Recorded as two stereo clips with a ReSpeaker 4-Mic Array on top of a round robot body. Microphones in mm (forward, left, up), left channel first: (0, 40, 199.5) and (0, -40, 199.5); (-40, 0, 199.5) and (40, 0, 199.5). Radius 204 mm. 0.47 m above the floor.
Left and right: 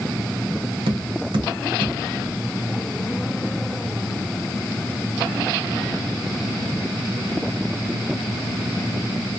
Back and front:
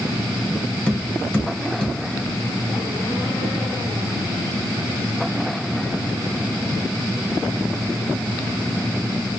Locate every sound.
0.9 s tapping: 100° right, 1.3 m